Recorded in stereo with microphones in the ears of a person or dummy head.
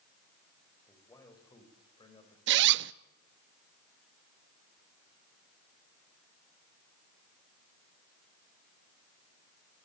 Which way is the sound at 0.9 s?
15° left (ahead or behind).